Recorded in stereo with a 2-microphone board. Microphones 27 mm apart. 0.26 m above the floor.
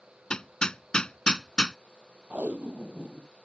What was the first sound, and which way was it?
Hammering, 30° left (ahead or behind).